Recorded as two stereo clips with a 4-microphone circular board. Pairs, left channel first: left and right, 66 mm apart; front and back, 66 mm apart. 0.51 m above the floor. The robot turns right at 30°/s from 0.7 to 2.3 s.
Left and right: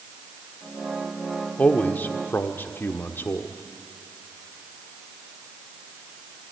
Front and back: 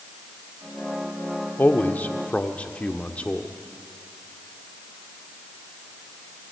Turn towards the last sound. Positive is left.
turn(degrees=60)